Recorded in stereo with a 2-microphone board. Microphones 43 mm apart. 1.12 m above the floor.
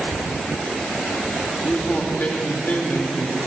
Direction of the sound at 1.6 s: 40° left (ahead or behind).